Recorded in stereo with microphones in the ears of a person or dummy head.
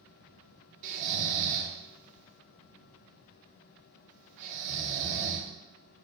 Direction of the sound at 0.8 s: 45° right (ahead or behind).